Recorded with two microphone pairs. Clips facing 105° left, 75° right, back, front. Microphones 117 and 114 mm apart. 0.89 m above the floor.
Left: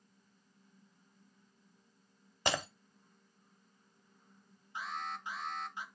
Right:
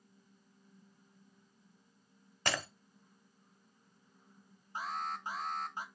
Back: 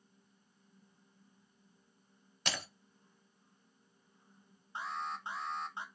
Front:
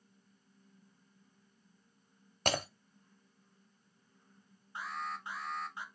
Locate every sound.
2.5 s breaking glass: 40° left, 0.7 m
4.8 s an alarm: 115° right, 0.8 m